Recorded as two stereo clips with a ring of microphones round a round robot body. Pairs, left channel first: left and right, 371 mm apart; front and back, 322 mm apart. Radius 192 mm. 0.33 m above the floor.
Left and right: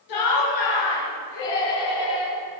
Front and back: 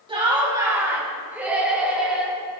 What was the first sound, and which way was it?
Laughter, 105° left.